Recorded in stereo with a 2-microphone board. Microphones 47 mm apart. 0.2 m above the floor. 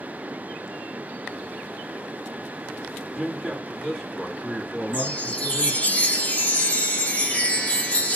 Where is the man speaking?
10° left (ahead or behind), 1.7 m.